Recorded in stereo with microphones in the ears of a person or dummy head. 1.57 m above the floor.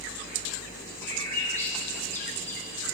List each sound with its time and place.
1.0 s a bird: 15° left (ahead or behind), 1.3 m